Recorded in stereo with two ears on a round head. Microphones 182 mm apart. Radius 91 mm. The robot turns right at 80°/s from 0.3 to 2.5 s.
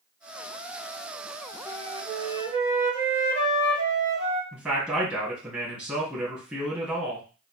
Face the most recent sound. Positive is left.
turn(degrees=-5)  # may be behind; listen again after turning